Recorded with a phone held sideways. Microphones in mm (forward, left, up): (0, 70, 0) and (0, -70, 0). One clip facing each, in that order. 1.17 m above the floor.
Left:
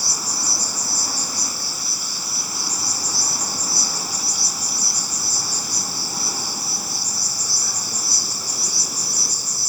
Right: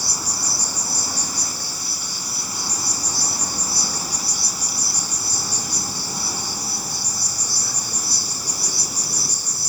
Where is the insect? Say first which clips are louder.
Even; 5° left (ahead or behind), 6.5 m.